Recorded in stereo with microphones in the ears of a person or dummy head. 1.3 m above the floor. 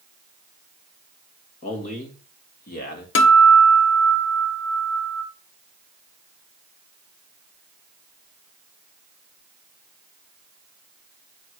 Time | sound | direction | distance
1.6 | a man speaking | 40° left (ahead or behind) | 3 m
3.1 | a guitar | 55° left (ahead or behind) | 0.9 m